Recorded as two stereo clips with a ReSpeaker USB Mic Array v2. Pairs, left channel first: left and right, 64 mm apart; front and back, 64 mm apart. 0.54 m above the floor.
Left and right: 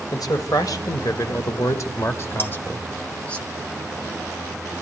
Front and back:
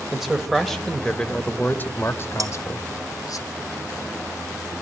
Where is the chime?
I don't hear a chime.